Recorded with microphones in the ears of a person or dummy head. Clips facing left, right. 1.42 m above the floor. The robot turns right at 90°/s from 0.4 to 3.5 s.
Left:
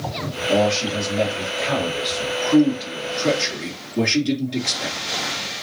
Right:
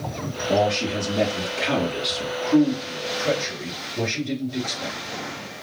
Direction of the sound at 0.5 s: 10° left (ahead or behind).